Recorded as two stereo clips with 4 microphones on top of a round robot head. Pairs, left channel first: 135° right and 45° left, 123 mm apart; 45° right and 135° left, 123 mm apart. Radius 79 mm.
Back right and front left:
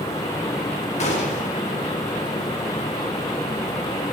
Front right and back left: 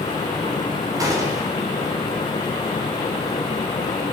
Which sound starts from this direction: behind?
A gunshot, at 1.0 s.